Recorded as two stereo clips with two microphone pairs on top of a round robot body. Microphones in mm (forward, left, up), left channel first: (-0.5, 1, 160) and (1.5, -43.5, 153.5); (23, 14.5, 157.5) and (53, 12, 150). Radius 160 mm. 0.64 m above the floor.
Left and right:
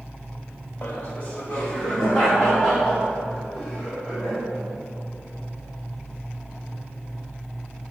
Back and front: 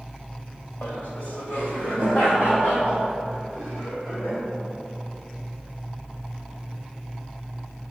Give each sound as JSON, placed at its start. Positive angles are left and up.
{"t": 0.8, "sound": "laughter", "azimuth_deg": 150, "distance_m": 2.5}